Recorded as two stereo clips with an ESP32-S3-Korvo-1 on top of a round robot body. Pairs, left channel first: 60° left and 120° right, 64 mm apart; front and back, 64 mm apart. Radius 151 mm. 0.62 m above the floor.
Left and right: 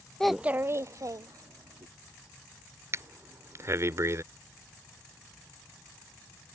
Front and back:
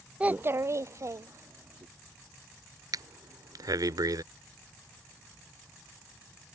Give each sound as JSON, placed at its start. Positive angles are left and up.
{"t": 0.2, "sound": "a child speaking", "azimuth_deg": 130}
{"t": 2.9, "sound": "breathing", "azimuth_deg": -165}